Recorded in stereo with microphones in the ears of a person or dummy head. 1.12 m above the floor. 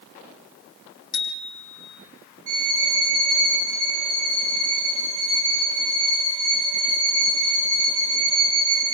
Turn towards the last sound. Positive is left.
turn(degrees=-75)  # may be behind; listen again after turning